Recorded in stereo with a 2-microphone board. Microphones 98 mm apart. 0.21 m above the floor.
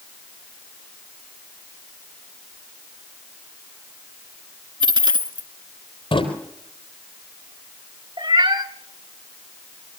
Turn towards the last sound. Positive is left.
turn(degrees=-65)  # may be behind; listen again after turning